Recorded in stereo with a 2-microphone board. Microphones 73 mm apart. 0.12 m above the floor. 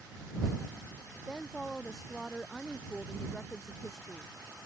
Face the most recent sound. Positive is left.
turn(degrees=5)  # may be behind; listen again after turning